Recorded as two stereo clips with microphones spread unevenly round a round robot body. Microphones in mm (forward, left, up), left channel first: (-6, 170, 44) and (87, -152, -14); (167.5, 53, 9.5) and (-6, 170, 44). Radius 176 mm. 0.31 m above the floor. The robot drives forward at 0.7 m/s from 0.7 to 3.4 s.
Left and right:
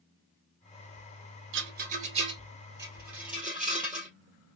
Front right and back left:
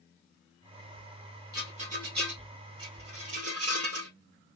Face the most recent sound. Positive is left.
turn(degrees=-165)